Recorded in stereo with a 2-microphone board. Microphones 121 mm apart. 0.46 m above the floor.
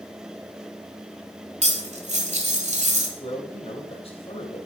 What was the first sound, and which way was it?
Cutlery clinking, 70° right (ahead or behind).